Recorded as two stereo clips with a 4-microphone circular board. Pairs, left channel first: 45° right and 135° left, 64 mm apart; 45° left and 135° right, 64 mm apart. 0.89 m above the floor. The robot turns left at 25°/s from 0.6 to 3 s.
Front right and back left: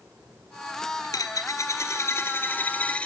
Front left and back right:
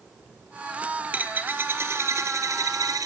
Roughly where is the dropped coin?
Ahead right.